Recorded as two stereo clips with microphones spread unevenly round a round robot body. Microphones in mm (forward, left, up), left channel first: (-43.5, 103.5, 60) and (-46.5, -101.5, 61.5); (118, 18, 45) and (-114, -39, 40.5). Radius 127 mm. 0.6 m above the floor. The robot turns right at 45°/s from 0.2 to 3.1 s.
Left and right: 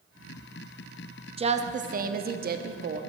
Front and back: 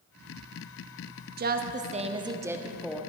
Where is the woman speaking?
145° right, 0.7 m; by 3.0 s 70° right, 0.7 m.